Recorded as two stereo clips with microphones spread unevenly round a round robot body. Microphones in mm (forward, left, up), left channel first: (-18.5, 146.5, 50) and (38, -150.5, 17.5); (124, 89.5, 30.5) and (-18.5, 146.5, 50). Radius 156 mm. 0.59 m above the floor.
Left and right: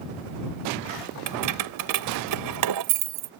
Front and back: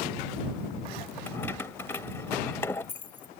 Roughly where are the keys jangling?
Right.